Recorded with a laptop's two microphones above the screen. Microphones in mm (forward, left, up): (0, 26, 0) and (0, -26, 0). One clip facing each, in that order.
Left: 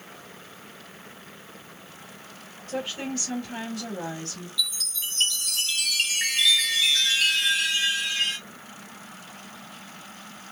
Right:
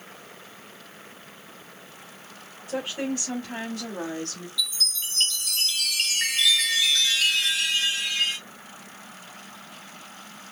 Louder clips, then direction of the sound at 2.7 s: Right 2 dB; 15° right (ahead or behind).